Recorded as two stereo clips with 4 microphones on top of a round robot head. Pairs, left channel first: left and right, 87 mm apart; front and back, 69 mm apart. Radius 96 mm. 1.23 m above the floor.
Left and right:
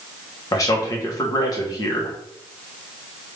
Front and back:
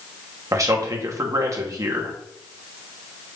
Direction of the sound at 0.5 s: 140° left.